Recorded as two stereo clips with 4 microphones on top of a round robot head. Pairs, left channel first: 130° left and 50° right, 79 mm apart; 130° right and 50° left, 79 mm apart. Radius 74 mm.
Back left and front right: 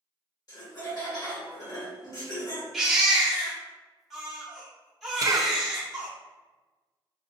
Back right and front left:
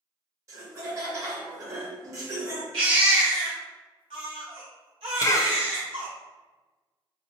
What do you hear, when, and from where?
0.5 s laughter: 100° left, 1.8 m
2.7 s a baby crying: 40° left, 0.9 m
5.2 s a cough: 90° right, 0.5 m